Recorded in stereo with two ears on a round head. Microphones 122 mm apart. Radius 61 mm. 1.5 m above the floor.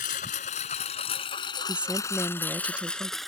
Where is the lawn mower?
65° left (ahead or behind); by 3.3 s centre (ahead or behind).